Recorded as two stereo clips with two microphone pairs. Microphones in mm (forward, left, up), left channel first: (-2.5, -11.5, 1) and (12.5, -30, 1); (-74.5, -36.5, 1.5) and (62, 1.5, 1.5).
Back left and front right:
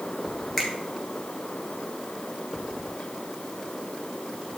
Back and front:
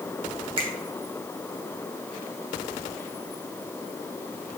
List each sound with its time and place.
0.6 s a finger snap: 55° left, 2 m